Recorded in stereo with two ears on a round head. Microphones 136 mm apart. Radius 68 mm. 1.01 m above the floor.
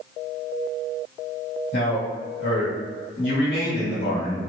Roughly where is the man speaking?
Left.